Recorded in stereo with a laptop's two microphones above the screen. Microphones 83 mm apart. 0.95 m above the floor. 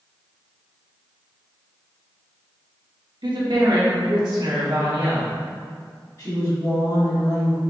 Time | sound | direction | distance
3.2 | a woman speaking | 65° right (ahead or behind) | 1.2 m
6.2 | a woman speaking | 45° left (ahead or behind) | 1.7 m